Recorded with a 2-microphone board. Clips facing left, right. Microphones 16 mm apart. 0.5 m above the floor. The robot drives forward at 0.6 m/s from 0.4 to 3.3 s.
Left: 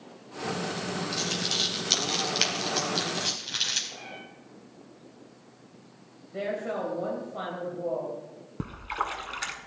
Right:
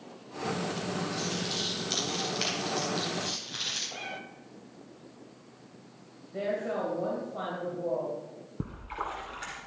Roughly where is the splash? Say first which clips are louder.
Left 5 dB; left.